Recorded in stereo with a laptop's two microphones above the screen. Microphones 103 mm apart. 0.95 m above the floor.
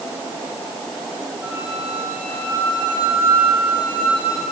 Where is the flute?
15° right (ahead or behind), 8 m.